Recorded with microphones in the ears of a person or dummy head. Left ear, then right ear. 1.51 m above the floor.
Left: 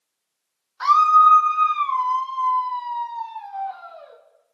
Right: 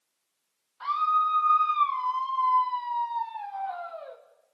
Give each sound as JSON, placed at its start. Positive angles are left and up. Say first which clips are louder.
{"t": 0.8, "sound": "a scream", "louder": "left 11 dB", "side_deg": 55, "distance_m": 1.2}